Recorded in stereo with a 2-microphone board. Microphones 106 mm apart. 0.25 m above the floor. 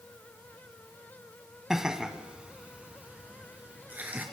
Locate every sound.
1.7 s laughter: 5° right (ahead or behind), 2.0 m; by 4.2 s 20° right (ahead or behind), 4.5 m